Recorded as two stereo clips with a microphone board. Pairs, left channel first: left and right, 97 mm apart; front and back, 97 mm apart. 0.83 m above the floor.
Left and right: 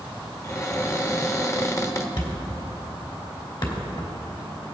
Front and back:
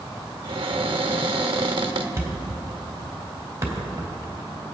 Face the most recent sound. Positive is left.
turn(degrees=120)